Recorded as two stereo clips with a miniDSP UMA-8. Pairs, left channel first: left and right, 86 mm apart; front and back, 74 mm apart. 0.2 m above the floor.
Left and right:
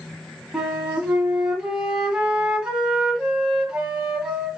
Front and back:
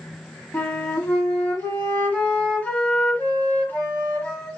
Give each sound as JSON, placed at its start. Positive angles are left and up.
{"t": 0.5, "sound": "a flute", "azimuth_deg": -25, "distance_m": 1.4}